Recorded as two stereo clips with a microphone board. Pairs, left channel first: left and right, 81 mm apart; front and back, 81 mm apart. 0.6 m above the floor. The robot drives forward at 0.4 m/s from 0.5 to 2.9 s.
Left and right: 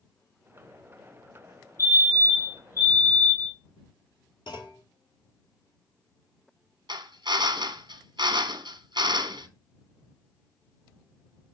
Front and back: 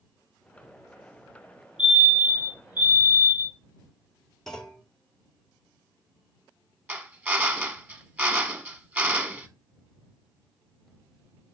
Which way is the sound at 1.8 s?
110° left.